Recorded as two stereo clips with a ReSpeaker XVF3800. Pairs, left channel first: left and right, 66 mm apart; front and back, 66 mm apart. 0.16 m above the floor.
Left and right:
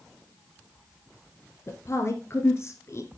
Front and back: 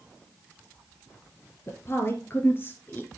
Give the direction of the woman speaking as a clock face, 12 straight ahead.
11 o'clock.